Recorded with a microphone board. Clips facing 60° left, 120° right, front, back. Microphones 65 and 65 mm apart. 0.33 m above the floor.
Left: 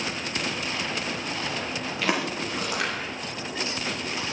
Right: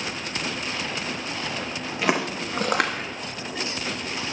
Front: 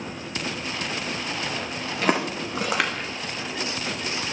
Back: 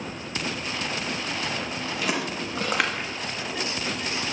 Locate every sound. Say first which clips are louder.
2.0 s footsteps: right 3 dB, front 6 dB; 50° right, 1.2 m; by 3.1 s 105° right, 1.1 m